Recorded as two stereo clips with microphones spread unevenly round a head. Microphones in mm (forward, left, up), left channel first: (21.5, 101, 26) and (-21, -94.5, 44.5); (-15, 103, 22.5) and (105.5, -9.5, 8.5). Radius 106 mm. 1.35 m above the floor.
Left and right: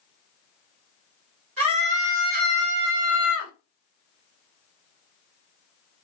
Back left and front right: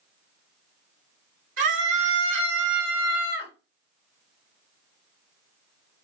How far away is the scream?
About 1.6 m.